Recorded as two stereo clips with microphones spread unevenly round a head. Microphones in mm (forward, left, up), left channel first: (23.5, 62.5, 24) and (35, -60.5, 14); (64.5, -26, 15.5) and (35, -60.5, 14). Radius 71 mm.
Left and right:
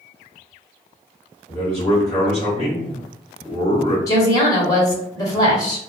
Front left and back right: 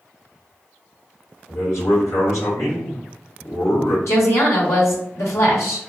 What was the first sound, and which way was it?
A man speaking, 40° left.